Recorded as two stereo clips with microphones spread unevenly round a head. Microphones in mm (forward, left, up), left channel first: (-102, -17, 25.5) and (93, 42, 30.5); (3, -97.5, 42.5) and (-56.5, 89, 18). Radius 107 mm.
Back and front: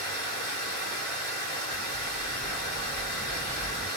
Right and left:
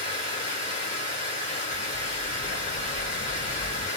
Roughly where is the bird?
Right.